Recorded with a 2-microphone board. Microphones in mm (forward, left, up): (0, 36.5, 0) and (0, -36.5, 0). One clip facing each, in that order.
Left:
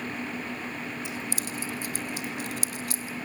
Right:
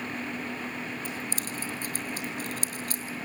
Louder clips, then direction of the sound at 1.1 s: Left 1 dB; 45° right (ahead or behind).